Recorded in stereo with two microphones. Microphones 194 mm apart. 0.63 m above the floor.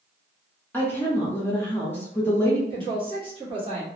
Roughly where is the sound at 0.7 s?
Centre.